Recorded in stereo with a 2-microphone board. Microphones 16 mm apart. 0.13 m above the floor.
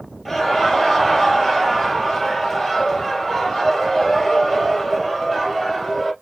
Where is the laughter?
5° left (ahead or behind), 3 m.